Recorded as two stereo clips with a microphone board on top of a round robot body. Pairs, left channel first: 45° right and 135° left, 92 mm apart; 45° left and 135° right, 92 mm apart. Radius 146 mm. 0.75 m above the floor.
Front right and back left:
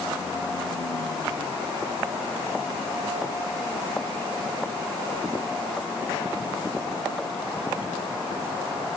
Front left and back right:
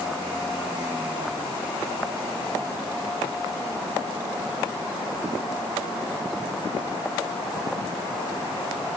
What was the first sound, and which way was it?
Only background noise.